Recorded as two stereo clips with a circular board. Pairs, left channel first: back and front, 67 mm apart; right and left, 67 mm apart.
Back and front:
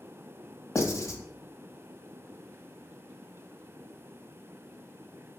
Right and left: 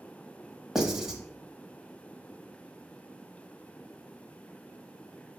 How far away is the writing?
About 1.0 m.